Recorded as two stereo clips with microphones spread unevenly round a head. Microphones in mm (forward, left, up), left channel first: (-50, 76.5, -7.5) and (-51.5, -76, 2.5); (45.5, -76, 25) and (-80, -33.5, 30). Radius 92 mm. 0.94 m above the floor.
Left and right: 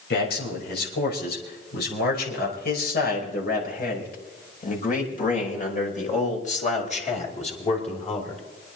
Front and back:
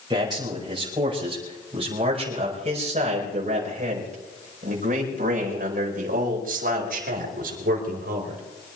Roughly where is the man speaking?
Left.